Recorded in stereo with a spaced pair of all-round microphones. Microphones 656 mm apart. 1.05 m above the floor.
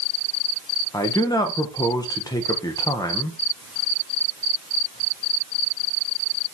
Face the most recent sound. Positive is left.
turn(degrees=5)  # may be behind; listen again after turning